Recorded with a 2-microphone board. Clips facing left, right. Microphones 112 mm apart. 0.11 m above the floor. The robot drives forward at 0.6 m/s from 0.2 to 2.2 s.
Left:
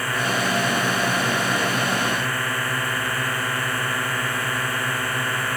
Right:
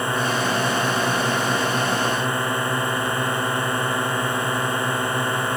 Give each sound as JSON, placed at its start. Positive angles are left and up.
{"t": 0.0, "sound": "a drone", "side_deg": -25}